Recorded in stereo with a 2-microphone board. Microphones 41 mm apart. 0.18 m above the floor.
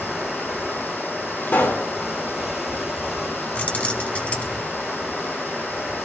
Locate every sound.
0.0 s running water: 5° right (ahead or behind), 7.5 m
1.5 s a pop: 60° left (ahead or behind), 3.5 m
3.5 s keys jangling: 35° left (ahead or behind), 1.0 m